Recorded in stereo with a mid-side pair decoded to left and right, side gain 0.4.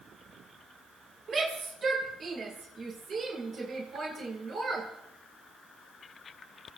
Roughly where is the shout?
Ahead right.